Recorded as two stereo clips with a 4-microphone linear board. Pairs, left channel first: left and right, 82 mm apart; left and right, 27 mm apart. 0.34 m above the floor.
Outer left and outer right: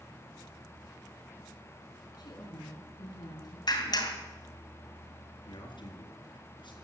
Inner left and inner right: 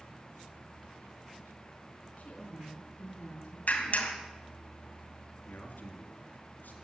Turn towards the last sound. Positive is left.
turn(degrees=75)  # may be behind; listen again after turning